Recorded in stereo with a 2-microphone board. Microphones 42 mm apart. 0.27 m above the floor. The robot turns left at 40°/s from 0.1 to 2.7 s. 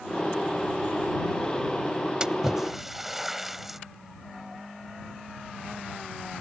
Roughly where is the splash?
Centre.